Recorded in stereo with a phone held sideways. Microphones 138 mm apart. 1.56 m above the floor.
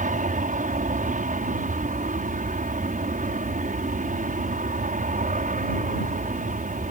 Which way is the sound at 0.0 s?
70° right (ahead or behind).